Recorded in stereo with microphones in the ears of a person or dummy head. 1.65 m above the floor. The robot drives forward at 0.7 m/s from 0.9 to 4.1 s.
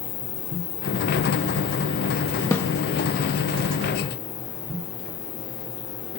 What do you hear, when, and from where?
0.0 s an insect: 85° left; by 6.2 s 65° left (ahead or behind)
2.5 s a snare drum: 15° left (ahead or behind); by 2.7 s 10° left (ahead or behind)